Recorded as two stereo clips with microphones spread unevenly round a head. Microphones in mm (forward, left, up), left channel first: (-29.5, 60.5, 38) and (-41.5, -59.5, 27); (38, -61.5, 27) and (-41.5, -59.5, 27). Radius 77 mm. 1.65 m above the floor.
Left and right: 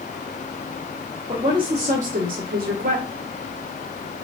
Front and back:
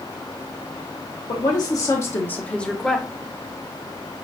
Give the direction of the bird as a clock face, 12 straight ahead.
No bird in this recording.